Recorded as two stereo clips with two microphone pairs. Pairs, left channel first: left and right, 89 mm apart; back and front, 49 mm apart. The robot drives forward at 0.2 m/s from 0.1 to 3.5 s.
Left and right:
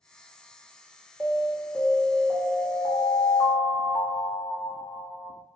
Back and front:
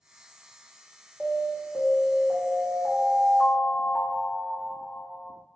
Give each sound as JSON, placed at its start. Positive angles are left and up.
{"t": 1.2, "sound": "an alarm", "azimuth_deg": 115, "distance_m": 1.2}